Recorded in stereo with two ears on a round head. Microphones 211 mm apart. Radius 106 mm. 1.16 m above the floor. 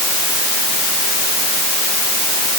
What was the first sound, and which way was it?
Only background noise.